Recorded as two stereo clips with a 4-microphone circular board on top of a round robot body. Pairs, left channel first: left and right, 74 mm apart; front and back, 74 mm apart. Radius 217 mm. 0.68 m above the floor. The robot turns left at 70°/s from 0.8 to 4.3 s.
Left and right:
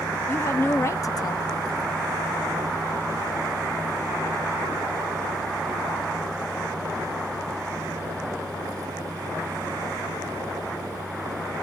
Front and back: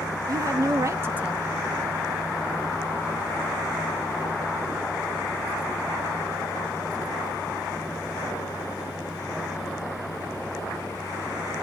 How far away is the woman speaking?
About 1.0 m.